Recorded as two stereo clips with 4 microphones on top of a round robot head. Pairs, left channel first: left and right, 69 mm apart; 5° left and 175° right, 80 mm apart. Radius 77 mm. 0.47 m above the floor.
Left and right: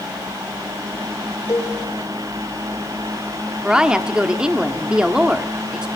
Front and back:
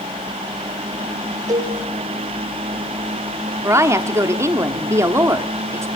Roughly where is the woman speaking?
Behind.